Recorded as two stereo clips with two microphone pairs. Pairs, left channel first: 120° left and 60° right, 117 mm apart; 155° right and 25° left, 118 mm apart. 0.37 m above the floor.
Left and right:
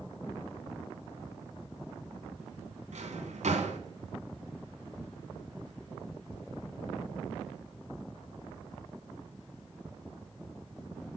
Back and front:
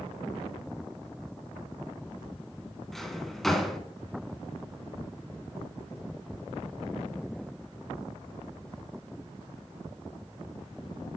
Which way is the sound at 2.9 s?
70° right.